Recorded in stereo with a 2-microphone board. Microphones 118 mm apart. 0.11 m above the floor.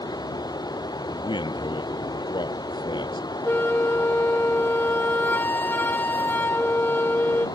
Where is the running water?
35° left (ahead or behind).